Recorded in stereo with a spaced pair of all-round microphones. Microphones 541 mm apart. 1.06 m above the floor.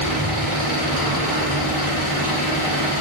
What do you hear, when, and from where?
0.0 s an engine running: 85° right, 4 m